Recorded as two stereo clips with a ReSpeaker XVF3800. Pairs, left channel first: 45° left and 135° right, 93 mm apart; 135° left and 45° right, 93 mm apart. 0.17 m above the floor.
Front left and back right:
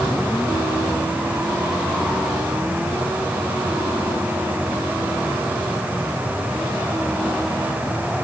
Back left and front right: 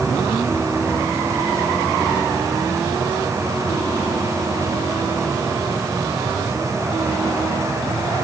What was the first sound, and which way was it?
Only background noise.